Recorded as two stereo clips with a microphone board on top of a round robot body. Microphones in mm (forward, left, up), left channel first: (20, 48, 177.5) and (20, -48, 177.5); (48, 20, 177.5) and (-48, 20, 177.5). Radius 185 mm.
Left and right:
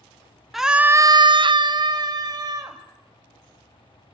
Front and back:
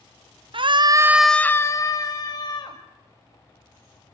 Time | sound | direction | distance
0.5 | a scream | straight behind | 0.7 m